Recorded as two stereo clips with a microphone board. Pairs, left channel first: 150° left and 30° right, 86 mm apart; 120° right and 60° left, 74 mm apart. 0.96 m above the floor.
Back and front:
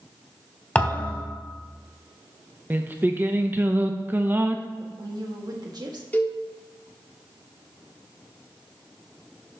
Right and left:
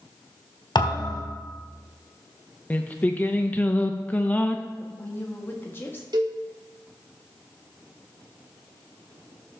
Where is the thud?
135° right, 2.0 m.